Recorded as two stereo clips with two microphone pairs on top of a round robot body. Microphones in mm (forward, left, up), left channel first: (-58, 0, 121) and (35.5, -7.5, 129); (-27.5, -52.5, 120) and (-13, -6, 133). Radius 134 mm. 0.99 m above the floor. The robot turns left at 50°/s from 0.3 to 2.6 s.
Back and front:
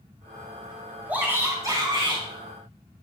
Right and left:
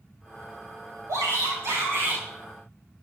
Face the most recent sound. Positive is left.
turn(degrees=-5)